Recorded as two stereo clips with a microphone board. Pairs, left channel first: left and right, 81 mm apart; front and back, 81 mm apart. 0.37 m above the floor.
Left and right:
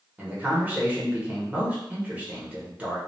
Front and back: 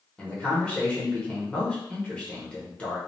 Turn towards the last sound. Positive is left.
turn(degrees=-50)